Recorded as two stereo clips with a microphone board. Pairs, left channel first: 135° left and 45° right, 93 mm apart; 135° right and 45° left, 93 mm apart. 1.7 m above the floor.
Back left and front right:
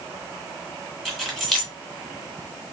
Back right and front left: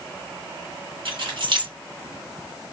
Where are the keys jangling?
45° left, 1.6 m.